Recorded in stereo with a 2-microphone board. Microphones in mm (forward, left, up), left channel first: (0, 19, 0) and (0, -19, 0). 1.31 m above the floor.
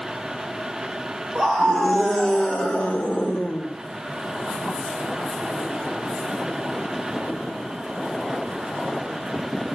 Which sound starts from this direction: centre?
A scream, at 1.4 s.